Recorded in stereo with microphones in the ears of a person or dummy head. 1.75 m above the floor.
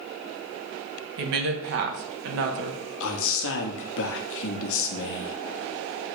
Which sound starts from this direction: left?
A man speaking, at 3.0 s.